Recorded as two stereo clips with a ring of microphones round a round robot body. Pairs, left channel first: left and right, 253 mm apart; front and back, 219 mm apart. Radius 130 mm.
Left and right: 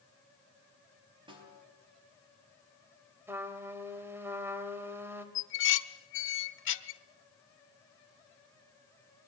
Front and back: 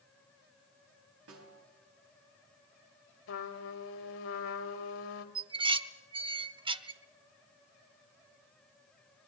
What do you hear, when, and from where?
1.3 s a snare drum: 160° right, 4 m
3.3 s a trumpet: 10° right, 1.7 m
5.3 s dishes clattering: 115° left, 0.9 m